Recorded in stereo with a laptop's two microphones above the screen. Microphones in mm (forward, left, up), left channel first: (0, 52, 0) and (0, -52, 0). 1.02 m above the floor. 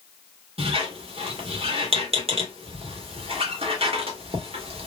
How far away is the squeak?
About 1.2 m.